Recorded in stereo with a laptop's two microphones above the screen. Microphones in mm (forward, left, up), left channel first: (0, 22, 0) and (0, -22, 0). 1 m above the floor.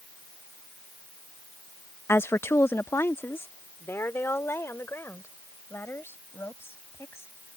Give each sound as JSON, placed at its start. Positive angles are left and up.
{"t": 2.1, "sound": "a woman speaking", "side_deg": 75}